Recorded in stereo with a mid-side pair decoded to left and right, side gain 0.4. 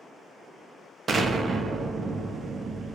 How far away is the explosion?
About 0.6 m.